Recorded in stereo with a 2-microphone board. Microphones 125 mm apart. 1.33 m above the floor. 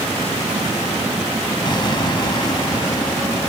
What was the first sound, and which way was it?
An explosion, 35° left (ahead or behind).